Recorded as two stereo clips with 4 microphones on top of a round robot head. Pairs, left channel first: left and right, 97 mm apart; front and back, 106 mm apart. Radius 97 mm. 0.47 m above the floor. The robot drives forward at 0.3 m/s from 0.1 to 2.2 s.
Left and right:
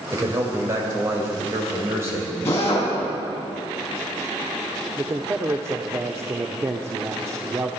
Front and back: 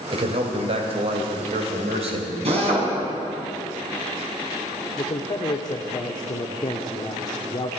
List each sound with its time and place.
0.1 s a man speaking: 150° right, 2.5 m; by 2.4 s 155° right, 3 m
2.5 s a drill: 160° left, 4.5 m
5.0 s a man speaking: 35° right, 1.0 m